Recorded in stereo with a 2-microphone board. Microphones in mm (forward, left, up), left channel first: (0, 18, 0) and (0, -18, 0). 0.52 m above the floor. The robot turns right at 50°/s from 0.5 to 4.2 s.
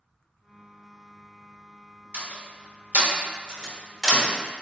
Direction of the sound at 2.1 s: 65° right (ahead or behind).